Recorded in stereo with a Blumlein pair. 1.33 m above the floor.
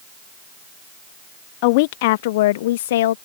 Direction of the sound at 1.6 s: 45° left.